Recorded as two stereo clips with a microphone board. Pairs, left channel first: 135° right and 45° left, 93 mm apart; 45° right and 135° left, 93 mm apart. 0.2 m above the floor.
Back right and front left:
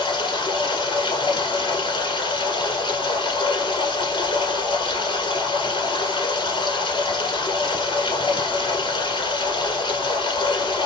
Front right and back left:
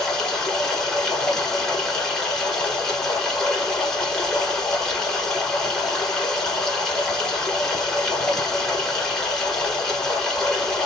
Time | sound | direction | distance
0.0 | running water | 125° right | 1.4 m